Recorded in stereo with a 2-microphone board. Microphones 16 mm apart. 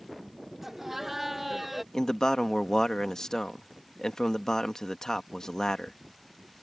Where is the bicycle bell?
I don't hear a bicycle bell.